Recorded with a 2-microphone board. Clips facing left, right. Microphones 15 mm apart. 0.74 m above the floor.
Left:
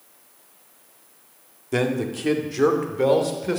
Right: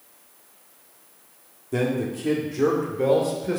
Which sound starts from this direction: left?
A man speaking, at 1.7 s.